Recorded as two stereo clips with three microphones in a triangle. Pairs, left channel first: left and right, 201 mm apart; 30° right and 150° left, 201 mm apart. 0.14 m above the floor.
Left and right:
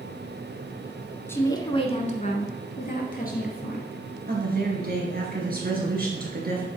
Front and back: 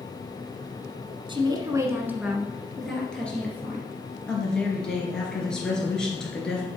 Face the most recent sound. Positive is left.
turn(degrees=-115)